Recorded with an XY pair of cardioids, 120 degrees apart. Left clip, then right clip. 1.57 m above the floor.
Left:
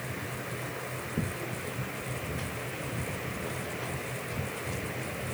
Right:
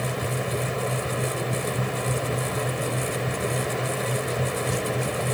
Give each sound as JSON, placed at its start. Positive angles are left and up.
{"t": 0.0, "sound": "a fan", "azimuth_deg": -65}